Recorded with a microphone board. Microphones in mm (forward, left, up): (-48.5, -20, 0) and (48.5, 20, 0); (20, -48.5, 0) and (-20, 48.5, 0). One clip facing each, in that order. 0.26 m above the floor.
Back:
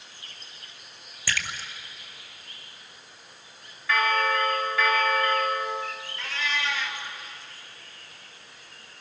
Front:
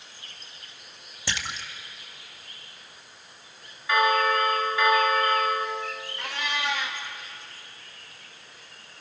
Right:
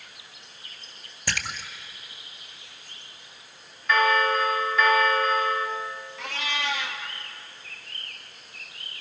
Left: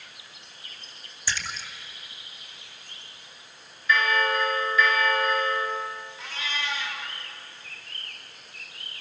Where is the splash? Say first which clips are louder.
Back 1 dB, right 1 dB; 45° right, 1.8 m.